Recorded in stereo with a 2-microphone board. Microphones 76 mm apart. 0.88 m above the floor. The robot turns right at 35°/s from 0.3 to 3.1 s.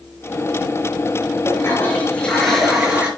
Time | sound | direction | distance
1.4 | a toilet flushing | 140° left | 5.5 m